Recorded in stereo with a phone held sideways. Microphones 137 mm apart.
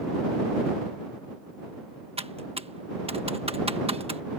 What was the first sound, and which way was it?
Typing on a keyboard, 45° right (ahead or behind).